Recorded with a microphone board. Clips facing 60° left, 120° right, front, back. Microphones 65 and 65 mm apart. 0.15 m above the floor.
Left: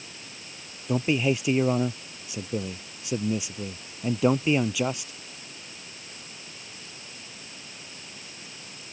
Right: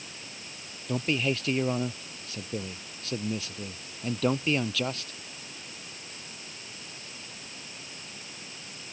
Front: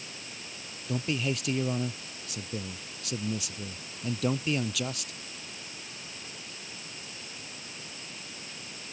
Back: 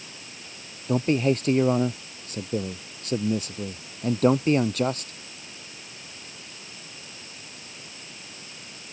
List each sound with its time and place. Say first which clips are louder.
0.9 s a man speaking: left 4 dB, back 9 dB; 135° left